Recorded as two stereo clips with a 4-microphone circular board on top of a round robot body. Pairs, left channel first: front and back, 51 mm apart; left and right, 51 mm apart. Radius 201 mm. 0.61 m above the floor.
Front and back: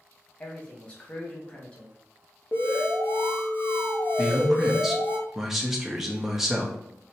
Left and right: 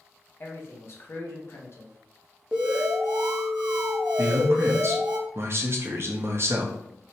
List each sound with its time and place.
0.4 s a man speaking: 60° left, 1.3 m
2.5 s an alarm: 20° right, 1.0 m
4.2 s a man speaking: 100° right, 0.9 m